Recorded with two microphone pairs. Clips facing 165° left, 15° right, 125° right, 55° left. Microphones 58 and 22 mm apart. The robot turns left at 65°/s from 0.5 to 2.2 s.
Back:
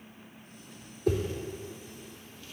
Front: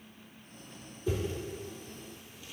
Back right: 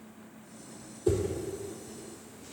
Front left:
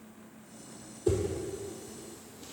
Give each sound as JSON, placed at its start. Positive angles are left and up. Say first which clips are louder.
{"t": 1.1, "sound": "a whoosh", "louder": "back 4 dB, back right 1 dB", "azimuth_deg": 145, "distance_m": 1.3}